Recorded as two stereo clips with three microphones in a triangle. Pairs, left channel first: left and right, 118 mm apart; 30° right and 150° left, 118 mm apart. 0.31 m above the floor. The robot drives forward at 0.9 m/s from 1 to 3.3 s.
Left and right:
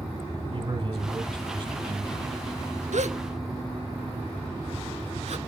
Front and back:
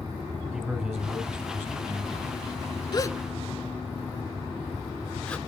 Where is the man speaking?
125° right, 2.5 m; by 2.3 s 145° right, 3 m.